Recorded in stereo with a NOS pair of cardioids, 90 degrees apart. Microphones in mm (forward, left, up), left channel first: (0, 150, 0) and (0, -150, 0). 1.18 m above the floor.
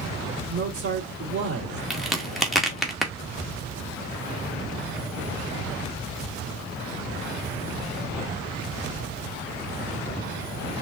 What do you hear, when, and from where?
0.5 s a man speaking: 50° right, 2.5 m
1.9 s a crack: straight ahead, 1.1 m